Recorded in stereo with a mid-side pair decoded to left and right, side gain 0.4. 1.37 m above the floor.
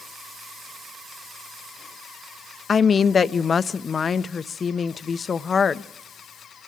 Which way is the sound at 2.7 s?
45° left.